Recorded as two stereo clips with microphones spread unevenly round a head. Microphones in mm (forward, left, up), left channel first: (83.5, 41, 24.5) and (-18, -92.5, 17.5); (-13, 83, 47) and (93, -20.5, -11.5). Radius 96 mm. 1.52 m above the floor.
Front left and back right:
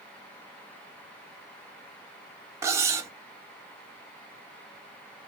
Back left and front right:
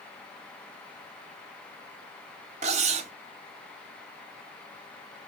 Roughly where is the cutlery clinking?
Right.